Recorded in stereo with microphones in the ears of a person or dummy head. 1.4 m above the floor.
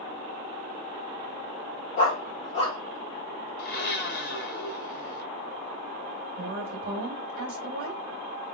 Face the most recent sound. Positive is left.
turn(degrees=-45)  # may be behind; listen again after turning